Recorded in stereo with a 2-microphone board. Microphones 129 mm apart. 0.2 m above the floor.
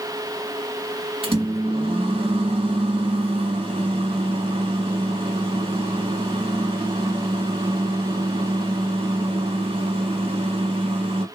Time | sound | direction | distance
1.2 | a microwave | 45° right (ahead or behind) | 1.1 m